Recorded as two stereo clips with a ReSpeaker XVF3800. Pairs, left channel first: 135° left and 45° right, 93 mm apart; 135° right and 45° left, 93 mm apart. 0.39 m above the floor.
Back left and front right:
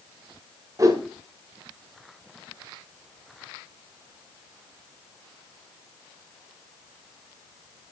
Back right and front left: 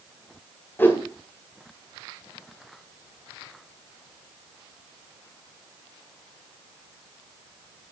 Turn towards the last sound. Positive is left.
turn(degrees=-75)